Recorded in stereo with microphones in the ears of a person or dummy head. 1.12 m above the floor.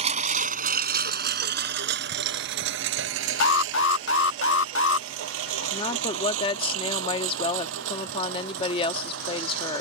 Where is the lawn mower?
40° right (ahead or behind); by 9.8 s 85° right.